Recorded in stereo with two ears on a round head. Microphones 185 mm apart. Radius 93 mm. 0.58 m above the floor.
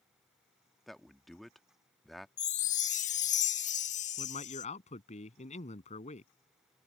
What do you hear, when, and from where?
0.9 s a man speaking: centre (ahead or behind)
2.4 s a chime: 35° left (ahead or behind)
4.2 s a man speaking: 35° left (ahead or behind)